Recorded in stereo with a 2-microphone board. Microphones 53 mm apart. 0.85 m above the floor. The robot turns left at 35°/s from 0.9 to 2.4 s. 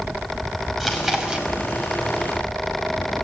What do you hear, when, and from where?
0.8 s chewing: 5° right (ahead or behind), 5.5 m; by 1.5 s 25° right (ahead or behind), 5.5 m